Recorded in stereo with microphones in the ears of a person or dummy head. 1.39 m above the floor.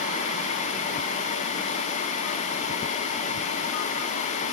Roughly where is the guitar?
No guitar in this recording.